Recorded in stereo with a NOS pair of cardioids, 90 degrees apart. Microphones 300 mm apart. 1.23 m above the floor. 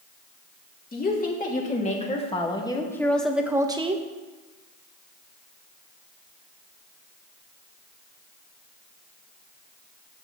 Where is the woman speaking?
30° left, 2.5 m; by 4.0 s 25° right, 1.0 m.